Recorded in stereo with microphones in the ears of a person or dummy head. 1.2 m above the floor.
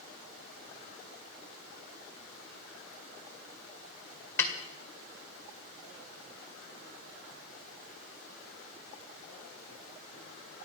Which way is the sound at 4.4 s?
10° left (ahead or behind).